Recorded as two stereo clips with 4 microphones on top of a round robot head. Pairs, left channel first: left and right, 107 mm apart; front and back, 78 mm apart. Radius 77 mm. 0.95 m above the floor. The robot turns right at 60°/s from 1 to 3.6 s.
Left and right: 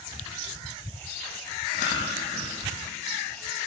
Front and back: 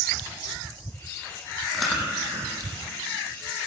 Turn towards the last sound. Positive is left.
turn(degrees=-165)